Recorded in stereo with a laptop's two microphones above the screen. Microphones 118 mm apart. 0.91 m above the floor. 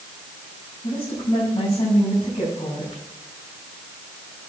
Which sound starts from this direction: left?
A woman speaking, at 0.8 s.